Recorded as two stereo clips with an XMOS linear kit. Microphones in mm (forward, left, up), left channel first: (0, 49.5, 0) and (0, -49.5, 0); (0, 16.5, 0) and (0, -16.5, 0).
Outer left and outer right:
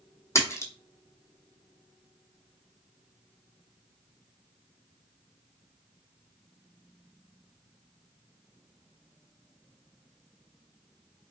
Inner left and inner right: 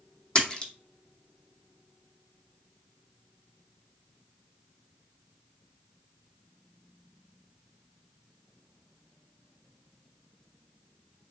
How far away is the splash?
About 0.8 m.